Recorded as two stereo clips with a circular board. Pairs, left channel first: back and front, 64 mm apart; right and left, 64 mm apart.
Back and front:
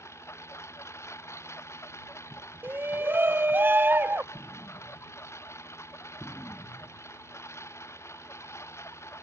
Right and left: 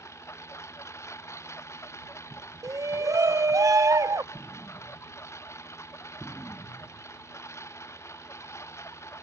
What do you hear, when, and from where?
0.0 s a lawn mower: 135° right
2.6 s a shout: 60° left
4.3 s an explosion: 165° right